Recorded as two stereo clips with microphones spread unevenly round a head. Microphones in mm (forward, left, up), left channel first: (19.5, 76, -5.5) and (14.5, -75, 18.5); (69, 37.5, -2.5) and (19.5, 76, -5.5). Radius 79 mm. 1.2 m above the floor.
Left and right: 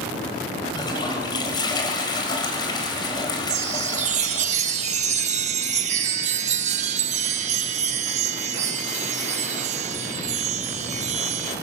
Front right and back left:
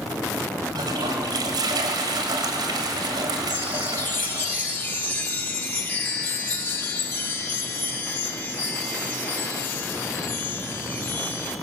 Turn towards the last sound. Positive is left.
turn(degrees=-90)